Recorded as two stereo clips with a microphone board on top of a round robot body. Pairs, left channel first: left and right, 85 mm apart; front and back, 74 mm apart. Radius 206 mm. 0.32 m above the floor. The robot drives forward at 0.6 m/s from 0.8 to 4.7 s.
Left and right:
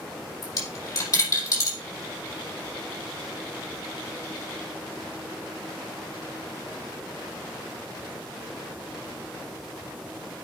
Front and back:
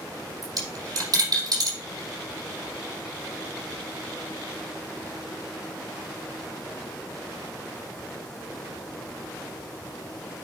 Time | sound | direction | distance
0.4 | a dropped coin | 140° left | 5.5 m